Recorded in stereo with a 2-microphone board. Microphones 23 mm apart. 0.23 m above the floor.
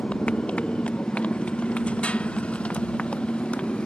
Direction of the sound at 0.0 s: 60° left (ahead or behind).